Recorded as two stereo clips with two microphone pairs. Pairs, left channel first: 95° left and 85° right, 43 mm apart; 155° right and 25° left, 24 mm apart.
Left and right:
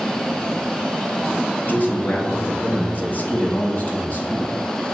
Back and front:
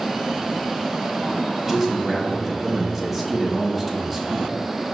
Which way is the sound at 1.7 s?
100° left.